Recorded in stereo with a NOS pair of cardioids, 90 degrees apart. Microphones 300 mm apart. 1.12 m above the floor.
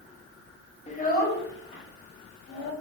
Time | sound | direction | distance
0.9 | a child speaking | 25° left | 1.2 m